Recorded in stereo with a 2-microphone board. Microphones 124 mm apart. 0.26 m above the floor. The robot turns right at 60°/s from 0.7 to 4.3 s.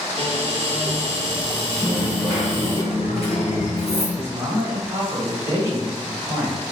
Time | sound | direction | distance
0.2 | a cupboard door | 100° right | 1.4 m
1.8 | a dropped coin | 15° right | 1.1 m
4.2 | a man speaking | 20° right (ahead or behind) | 0.9 m